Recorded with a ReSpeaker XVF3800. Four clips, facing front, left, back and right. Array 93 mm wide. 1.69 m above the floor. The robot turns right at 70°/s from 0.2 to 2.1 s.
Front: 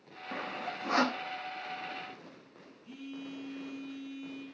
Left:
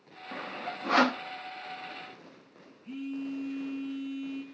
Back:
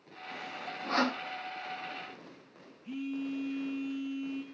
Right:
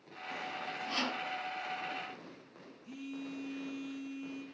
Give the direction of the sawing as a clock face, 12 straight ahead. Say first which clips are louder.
Left 3 dB, front 3 dB; 11 o'clock.